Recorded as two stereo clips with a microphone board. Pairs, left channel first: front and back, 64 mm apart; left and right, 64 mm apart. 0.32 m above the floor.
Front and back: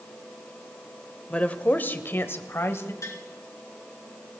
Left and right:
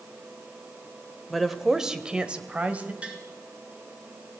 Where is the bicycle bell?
No bicycle bell in this recording.